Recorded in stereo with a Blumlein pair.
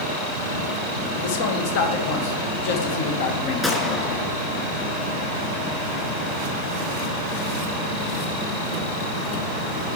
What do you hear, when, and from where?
1.2 s a man speaking: 50° left, 1.1 m
3.6 s a gunshot: 10° left, 1.9 m